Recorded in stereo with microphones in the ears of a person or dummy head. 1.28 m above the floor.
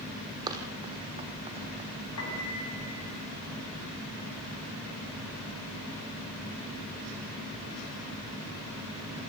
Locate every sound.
0.5 s running footsteps: 25° right (ahead or behind), 3 m; by 1.9 s 35° right (ahead or behind), 3 m
2.2 s a piano: 90° left, 7.5 m